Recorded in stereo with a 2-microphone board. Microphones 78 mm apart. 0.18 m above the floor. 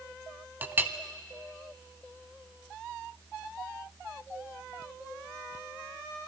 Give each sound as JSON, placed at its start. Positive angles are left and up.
{"t": 0.6, "sound": "a clink", "side_deg": -25, "distance_m": 0.6}